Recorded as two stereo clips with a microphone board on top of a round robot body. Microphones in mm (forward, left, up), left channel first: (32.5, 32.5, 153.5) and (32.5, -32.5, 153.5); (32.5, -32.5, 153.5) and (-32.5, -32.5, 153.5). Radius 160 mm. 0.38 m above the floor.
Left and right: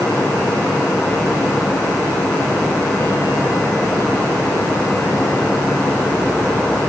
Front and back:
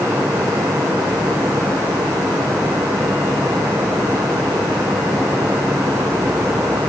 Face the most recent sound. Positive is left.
No sound to turn to.